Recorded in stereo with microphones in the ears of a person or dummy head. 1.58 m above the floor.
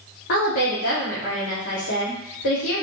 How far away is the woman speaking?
About 1.3 m.